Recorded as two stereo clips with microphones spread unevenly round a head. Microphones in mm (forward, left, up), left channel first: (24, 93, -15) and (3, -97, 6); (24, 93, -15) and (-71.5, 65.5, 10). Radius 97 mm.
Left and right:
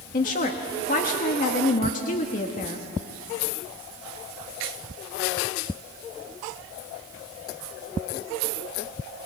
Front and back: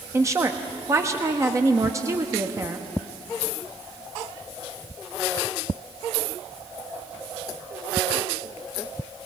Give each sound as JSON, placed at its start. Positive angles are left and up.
{"t": 0.1, "sound": "a woman speaking", "azimuth_deg": 130, "distance_m": 1.2}